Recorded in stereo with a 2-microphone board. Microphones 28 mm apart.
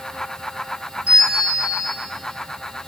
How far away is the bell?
About 5 m.